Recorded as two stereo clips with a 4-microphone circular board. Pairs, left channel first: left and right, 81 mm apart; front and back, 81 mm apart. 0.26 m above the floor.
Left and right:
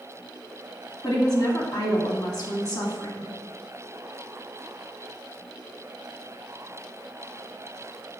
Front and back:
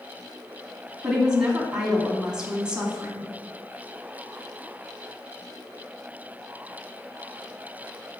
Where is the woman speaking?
105° left, 2 m.